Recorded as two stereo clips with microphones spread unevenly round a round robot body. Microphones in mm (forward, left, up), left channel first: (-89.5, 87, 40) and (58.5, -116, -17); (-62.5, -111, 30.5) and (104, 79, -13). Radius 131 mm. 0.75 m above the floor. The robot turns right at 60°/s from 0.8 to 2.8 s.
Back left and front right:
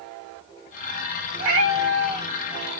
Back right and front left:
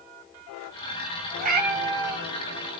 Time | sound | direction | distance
1.4 | a cat meowing | 15° right | 1.4 m